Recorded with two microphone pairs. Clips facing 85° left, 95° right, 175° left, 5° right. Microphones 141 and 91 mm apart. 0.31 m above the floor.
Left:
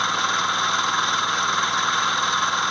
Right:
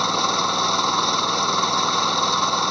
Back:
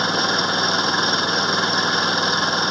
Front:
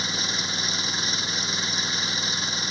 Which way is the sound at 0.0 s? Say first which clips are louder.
Right 3 dB, back 12 dB; 155° right.